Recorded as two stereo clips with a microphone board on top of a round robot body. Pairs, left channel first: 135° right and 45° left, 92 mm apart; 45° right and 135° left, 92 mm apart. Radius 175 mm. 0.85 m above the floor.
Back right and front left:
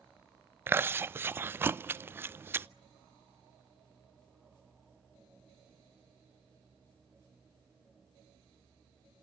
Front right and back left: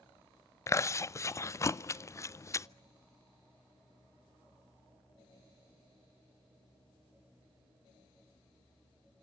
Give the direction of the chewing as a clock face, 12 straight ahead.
12 o'clock.